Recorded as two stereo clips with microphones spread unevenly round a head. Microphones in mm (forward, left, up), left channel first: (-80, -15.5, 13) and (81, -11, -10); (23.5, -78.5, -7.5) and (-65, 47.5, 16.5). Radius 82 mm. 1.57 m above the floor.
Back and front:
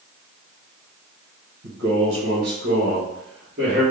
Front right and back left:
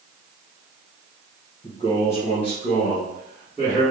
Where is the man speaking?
10° left, 1.1 m; by 3.8 s 50° left, 1.9 m.